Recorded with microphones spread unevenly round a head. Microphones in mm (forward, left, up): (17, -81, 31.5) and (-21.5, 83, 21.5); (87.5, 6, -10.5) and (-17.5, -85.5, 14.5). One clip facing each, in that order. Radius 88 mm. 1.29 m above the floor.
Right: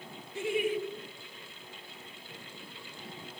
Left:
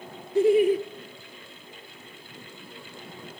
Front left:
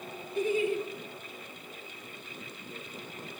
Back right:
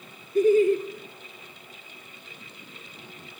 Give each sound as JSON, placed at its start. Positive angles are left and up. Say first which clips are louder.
{"t": 0.3, "sound": "laughter", "louder": "left 12 dB, back right 10 dB", "azimuth_deg": 155, "distance_m": 1.2}